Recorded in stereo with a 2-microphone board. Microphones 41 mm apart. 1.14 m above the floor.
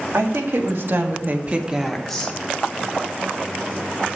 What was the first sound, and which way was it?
A woman speaking, 80° right.